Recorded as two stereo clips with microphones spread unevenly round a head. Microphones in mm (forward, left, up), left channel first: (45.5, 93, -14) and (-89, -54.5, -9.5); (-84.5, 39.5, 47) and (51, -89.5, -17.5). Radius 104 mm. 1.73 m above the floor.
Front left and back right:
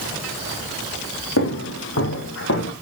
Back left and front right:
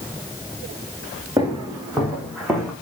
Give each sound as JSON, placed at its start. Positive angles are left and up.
{"t": 1.4, "sound": "footsteps", "azimuth_deg": 40, "distance_m": 4.5}